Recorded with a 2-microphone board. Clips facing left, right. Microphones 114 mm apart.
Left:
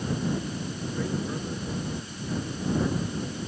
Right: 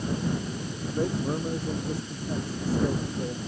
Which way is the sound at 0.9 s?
35° right (ahead or behind).